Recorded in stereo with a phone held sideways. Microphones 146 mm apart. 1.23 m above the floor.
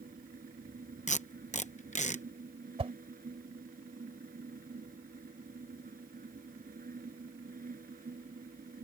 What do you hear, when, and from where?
0.0 s a fan: 80° right
1.1 s tape being pulled: 55° left (ahead or behind)
2.8 s a whoosh: 45° right (ahead or behind)